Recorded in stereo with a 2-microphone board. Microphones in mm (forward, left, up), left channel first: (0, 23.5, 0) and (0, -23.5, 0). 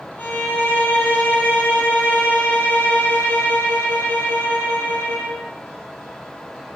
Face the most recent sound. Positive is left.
turn(degrees=45)  # may be behind; listen again after turning